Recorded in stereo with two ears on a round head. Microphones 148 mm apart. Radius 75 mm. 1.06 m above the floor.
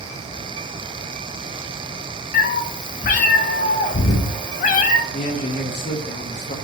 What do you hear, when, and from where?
2.3 s a cat meowing: 50° left (ahead or behind), 0.6 m
5.1 s a man speaking: 40° left (ahead or behind), 0.6 m